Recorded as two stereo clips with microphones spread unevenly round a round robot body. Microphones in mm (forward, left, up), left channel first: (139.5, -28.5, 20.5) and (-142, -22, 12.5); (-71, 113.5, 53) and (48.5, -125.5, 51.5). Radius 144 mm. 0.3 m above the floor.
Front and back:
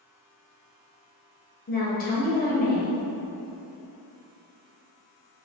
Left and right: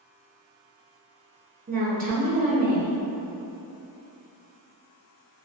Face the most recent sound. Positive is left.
turn(degrees=-40)